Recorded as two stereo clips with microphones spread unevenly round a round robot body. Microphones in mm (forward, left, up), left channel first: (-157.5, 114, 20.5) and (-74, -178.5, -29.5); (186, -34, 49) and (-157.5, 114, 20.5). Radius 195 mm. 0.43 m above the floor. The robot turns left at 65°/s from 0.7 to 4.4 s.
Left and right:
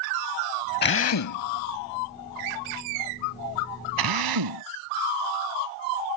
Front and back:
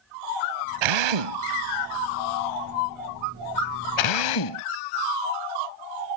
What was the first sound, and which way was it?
A drill, 170° left.